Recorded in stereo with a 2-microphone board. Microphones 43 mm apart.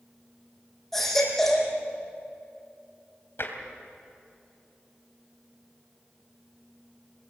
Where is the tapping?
60° left (ahead or behind), 3 m.